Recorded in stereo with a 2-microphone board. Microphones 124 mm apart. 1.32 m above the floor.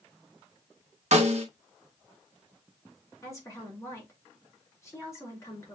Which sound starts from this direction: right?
A snare drum, at 1.1 s.